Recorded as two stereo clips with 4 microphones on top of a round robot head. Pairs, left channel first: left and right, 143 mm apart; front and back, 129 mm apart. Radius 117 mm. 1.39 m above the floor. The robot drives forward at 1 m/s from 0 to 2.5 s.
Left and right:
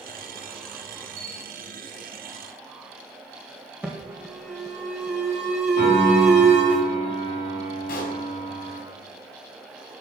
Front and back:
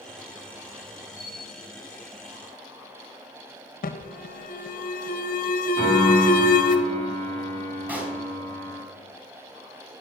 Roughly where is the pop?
Left.